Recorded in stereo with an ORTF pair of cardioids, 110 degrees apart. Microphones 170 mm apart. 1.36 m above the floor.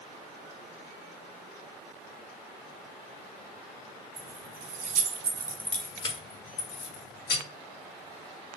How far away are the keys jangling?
About 1.2 m.